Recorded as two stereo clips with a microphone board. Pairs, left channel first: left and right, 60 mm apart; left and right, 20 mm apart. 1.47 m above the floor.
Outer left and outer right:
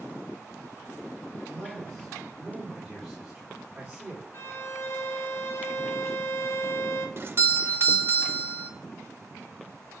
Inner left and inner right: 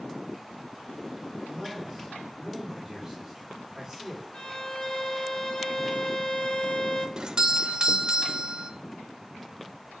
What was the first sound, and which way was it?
A man speaking, 25° left (ahead or behind).